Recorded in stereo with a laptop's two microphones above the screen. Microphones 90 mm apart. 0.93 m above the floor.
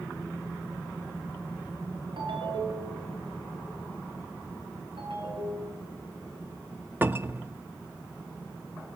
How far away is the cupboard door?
About 1.0 m.